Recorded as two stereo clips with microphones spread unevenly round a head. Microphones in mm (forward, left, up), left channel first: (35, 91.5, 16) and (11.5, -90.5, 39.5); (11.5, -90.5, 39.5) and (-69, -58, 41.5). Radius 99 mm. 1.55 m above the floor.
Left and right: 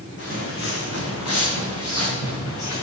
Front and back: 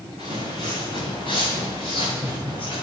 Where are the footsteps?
120° left, 3.5 m; by 2.8 s 80° left, 6 m.